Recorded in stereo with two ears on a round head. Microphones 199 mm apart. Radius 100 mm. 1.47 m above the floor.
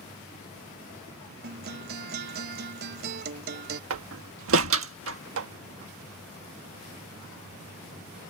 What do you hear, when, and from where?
1.4 s a guitar: 45° right (ahead or behind)
3.9 s a door slam: 65° right (ahead or behind)